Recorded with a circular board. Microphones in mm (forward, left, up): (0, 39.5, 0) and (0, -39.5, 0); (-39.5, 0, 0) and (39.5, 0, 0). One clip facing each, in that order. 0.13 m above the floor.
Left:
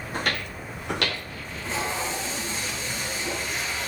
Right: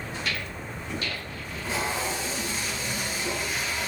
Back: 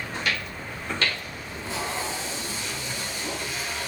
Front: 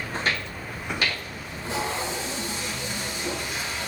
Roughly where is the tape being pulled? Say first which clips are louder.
Even, front 3 dB; ahead.